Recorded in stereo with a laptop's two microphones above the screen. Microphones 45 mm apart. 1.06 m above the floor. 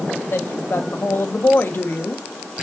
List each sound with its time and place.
0.3 s a woman speaking: 55° left (ahead or behind), 1.5 m